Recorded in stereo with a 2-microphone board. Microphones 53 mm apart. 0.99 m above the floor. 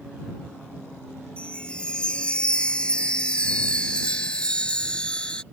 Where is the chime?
20° left (ahead or behind).